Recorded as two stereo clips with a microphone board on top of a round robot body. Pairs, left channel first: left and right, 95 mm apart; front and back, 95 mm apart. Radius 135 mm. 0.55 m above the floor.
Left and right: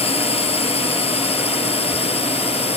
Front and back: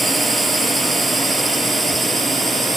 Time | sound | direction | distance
0.0 | a drone | 90° left | ?